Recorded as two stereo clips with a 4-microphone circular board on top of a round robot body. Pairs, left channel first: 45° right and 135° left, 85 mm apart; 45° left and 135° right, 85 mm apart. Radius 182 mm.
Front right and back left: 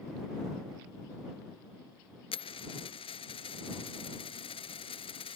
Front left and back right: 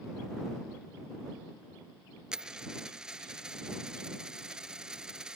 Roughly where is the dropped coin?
Ahead right.